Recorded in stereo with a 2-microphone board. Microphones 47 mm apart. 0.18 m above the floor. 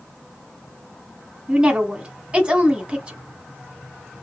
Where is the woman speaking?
25° right (ahead or behind), 1.2 m.